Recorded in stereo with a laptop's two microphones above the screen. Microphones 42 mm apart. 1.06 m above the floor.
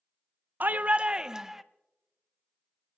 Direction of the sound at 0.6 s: 45° right (ahead or behind).